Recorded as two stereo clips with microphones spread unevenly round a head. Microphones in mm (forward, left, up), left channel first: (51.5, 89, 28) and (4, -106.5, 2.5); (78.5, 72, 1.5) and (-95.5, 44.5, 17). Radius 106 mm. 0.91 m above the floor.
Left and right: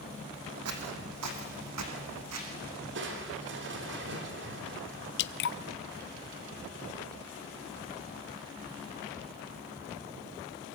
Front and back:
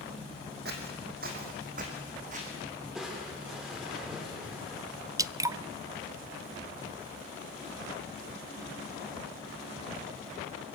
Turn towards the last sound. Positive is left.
turn(degrees=115)